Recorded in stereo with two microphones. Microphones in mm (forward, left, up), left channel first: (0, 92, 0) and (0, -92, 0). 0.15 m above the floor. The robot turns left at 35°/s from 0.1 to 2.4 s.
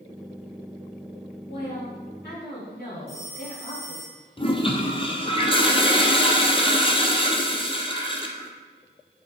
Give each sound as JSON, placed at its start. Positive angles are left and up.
{"t": 1.5, "sound": "a woman speaking", "azimuth_deg": 100, "distance_m": 3.5}
{"t": 3.1, "sound": "a phone ringing", "side_deg": 35, "distance_m": 3.0}
{"t": 4.4, "sound": "a toilet flushing", "side_deg": 30, "distance_m": 1.1}